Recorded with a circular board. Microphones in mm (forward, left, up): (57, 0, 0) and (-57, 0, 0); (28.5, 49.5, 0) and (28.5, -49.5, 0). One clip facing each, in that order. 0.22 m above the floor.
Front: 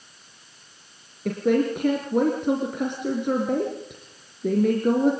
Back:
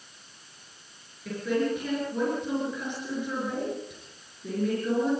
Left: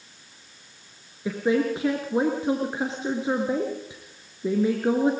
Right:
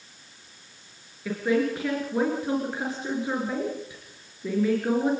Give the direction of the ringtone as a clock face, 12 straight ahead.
I don't hear a ringtone.